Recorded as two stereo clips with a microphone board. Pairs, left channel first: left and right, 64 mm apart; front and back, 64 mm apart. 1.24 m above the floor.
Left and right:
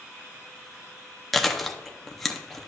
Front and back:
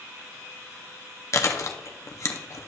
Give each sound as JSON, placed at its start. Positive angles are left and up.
{"t": 1.3, "sound": "chewing", "azimuth_deg": 5, "distance_m": 0.7}